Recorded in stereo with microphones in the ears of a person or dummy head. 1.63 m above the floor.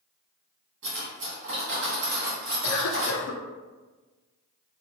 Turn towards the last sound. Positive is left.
turn(degrees=65)  # may be behind; listen again after turning